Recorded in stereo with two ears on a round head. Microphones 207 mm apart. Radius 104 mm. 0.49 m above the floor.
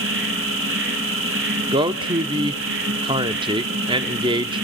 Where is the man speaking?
20° right (ahead or behind), 0.7 m.